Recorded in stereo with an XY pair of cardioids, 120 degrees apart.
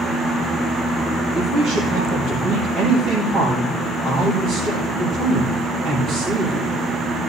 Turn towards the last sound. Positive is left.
turn(degrees=-50)